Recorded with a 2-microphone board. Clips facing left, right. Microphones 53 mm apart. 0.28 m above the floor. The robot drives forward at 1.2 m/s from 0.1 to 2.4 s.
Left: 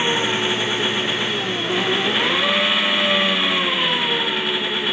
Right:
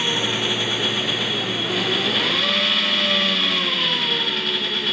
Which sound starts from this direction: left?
An engine running, at 0.0 s.